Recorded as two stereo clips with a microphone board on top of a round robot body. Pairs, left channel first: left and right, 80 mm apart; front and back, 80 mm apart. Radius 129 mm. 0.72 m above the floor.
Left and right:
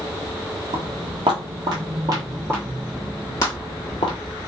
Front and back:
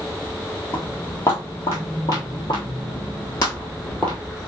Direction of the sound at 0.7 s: 65° right.